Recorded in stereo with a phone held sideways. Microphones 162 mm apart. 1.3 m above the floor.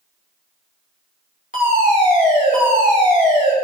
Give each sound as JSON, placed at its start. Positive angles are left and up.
{"t": 1.5, "sound": "a fire alarm", "side_deg": 50, "distance_m": 7.0}